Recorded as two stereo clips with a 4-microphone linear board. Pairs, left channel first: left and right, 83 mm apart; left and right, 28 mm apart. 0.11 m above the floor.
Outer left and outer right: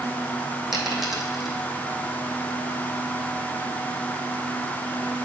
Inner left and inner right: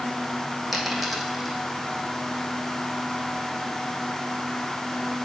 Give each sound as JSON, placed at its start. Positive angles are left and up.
{"t": 0.7, "sound": "a dropped coin", "side_deg": -5, "distance_m": 1.4}